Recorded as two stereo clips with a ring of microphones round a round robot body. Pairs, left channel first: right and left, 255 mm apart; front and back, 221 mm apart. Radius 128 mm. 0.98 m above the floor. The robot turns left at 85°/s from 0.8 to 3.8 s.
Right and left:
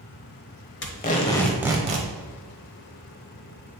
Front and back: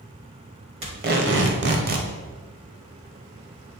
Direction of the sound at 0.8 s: 120° right.